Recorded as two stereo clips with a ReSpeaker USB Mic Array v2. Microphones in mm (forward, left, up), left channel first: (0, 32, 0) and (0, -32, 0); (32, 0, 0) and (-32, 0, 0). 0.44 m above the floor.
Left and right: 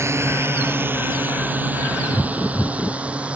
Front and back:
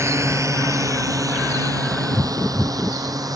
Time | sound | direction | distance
0.0 | a drone | 135° right | ?